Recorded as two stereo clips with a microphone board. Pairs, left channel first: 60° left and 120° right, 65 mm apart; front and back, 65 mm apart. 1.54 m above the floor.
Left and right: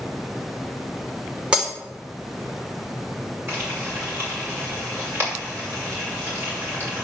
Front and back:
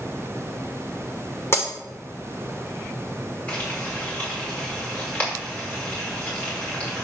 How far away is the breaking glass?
About 2 m.